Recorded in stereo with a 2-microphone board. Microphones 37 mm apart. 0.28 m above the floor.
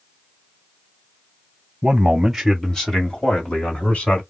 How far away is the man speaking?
About 1.3 m.